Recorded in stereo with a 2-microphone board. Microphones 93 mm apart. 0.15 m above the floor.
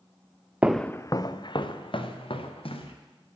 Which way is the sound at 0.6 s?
15° right (ahead or behind).